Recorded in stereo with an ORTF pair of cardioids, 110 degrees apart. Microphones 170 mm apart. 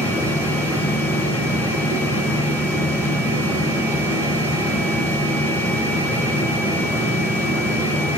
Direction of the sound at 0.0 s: 15° left.